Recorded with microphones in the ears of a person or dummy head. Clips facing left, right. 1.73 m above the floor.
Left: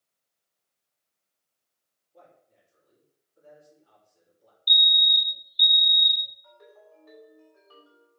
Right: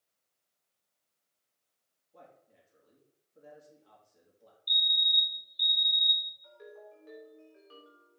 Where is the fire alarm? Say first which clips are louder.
Left 9 dB; 65° left (ahead or behind), 0.8 m.